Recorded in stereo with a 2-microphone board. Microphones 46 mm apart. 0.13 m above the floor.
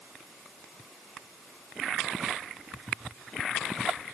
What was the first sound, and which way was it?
Only background noise.